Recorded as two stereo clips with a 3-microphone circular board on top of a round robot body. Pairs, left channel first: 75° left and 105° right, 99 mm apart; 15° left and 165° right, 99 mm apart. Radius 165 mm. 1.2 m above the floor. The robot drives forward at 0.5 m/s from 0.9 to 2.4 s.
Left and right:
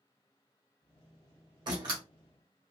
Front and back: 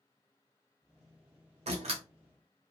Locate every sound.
1.7 s a door slam: 155° right, 0.7 m; by 2.0 s 160° right, 0.8 m